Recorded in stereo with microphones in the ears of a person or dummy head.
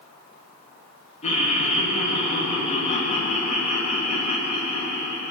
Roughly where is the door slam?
I don't hear a door slam.